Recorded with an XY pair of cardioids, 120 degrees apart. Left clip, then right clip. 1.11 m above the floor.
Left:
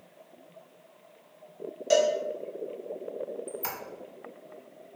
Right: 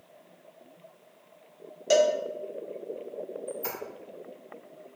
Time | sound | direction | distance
1.9 | a cowbell | 20° right | 0.5 m
3.5 | a squeak | 40° left | 0.7 m